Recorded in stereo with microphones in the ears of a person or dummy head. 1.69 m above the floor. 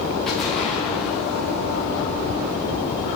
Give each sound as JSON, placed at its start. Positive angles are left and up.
{"t": 0.3, "sound": "an explosion", "side_deg": 5, "distance_m": 2.5}